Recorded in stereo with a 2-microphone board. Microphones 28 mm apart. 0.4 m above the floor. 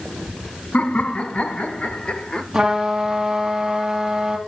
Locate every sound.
0.7 s laughter: 55° left (ahead or behind), 1.8 m; by 2.4 s 35° left (ahead or behind), 1.1 m
2.5 s a trumpet: 20° right (ahead or behind), 2.5 m